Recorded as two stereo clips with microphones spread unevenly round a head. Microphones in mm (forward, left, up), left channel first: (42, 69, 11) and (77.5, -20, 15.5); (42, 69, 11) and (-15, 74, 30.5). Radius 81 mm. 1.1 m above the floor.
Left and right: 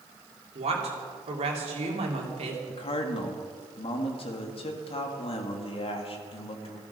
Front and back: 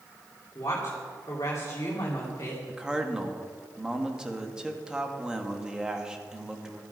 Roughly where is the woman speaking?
Ahead right.